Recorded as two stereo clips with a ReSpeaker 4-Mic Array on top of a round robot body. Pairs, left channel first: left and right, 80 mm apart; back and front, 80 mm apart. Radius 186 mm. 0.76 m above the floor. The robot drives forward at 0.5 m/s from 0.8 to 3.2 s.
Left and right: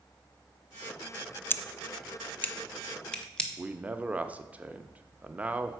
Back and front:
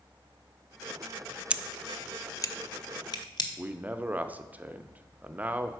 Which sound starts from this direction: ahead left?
Scissors, at 1.5 s.